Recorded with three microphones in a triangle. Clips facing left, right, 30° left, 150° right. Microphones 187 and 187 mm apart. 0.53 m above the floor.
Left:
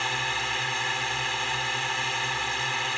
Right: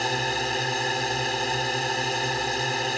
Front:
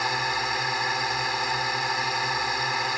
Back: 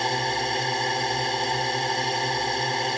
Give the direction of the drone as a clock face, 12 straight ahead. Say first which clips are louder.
Right 7 dB, back 4 dB; 3 o'clock.